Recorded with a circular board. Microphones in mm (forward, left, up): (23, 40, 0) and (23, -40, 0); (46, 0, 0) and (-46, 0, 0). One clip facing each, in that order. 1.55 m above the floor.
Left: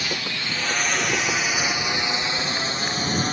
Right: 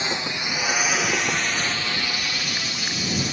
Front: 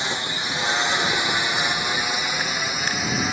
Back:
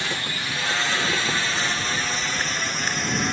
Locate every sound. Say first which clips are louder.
0.0 s a drone: right 2 dB, front 2 dB; 50° right; by 3.3 s 80° left